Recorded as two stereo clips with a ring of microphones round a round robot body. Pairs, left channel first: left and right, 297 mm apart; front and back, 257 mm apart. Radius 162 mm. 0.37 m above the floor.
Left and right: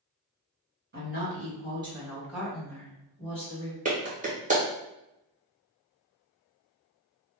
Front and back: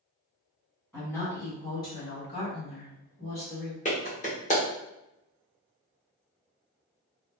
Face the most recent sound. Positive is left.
turn(degrees=-40)